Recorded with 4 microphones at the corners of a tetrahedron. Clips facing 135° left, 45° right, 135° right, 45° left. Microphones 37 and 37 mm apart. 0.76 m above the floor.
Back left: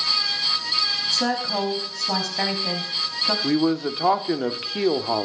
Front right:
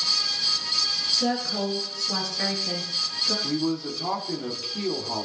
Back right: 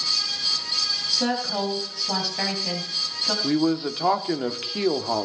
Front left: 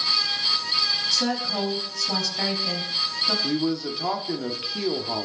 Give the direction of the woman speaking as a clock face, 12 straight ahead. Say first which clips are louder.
Back left 2 dB, even; 7 o'clock.